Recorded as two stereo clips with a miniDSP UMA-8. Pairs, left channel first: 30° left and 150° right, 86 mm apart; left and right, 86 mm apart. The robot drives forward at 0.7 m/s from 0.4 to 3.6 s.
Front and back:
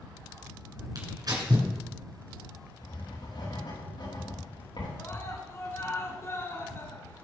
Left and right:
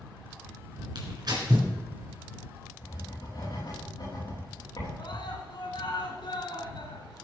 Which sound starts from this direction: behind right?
Tearing paper, at 0.9 s.